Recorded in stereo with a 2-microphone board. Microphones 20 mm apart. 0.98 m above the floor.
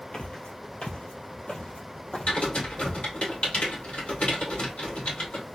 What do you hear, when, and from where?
0.1 s footsteps: 55° left (ahead or behind), 1.6 m
2.3 s typing on a keyboard: 75° left (ahead or behind), 2 m